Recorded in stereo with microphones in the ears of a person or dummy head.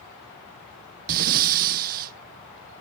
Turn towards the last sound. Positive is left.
turn(degrees=-45)  # may be behind; listen again after turning